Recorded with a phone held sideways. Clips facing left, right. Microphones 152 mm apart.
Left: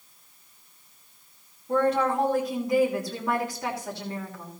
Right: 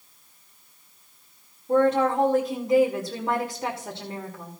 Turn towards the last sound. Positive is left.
turn(degrees=-30)  # may be behind; listen again after turning